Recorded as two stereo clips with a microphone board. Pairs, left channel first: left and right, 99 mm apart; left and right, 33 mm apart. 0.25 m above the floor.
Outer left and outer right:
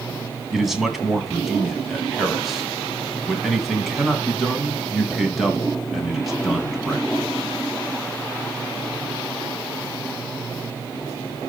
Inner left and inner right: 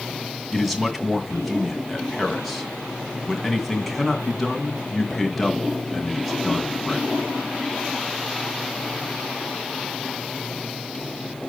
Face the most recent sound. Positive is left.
turn(degrees=0)  # may be behind; listen again after turning